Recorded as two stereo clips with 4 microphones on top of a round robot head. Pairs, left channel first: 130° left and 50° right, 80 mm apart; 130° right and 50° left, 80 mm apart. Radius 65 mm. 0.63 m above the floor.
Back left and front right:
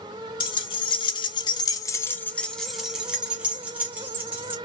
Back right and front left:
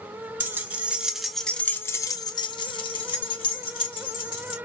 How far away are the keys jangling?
About 1.1 m.